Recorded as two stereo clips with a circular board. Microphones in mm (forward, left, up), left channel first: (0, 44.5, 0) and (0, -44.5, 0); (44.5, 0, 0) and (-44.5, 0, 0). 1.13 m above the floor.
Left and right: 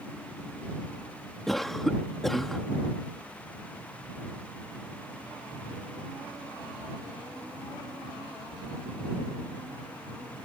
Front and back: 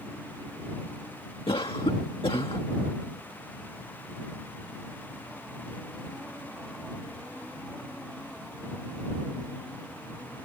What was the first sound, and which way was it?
A cough, 5° left.